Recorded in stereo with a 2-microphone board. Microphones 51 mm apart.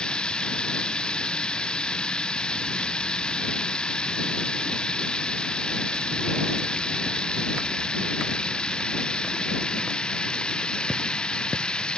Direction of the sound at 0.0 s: 20° left (ahead or behind).